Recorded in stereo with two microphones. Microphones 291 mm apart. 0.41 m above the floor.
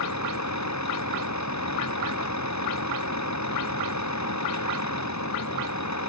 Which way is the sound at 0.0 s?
75° left (ahead or behind).